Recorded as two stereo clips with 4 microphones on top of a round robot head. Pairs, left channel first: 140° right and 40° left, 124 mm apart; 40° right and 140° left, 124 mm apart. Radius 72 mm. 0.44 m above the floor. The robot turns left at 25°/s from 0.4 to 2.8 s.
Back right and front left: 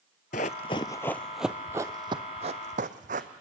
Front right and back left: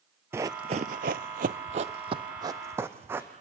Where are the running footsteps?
150° right, 0.5 m; by 3.3 s 70° left, 1.6 m.